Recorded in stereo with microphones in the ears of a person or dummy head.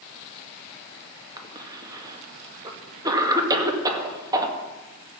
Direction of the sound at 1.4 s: 20° right (ahead or behind).